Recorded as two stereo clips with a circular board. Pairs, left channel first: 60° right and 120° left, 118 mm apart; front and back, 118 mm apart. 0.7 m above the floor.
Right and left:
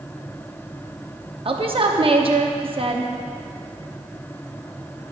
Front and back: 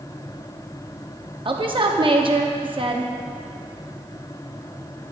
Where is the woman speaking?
145° left, 0.9 m.